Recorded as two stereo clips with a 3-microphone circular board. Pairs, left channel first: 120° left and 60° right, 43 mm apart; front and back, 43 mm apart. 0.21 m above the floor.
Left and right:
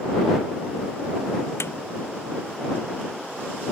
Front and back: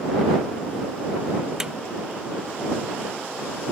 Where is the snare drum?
100° left.